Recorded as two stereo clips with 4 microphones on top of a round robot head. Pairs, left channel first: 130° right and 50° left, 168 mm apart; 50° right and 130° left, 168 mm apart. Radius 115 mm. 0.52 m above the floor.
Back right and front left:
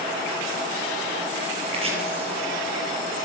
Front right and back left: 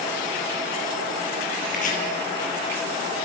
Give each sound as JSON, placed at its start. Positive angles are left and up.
{"t": 1.7, "sound": "chopping", "azimuth_deg": -5, "distance_m": 7.5}